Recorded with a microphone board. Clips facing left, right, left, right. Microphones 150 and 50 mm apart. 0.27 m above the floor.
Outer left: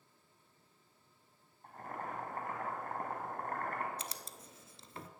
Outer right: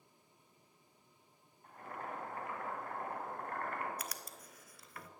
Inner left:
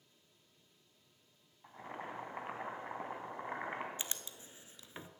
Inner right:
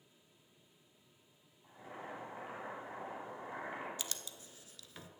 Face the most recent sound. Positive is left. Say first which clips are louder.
# even, even
turn(degrees=25)  # may be behind; listen again after turning